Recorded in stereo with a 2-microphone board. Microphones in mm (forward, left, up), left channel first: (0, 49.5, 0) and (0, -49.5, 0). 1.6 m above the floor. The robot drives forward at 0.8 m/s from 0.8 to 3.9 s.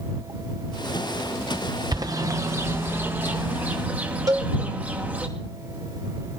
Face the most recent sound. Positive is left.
turn(degrees=-40)  # may be behind; listen again after turning